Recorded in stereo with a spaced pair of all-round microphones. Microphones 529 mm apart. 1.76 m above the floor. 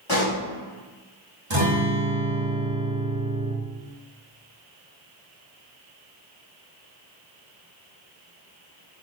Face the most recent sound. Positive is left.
turn(degrees=-60)  # may be behind; listen again after turning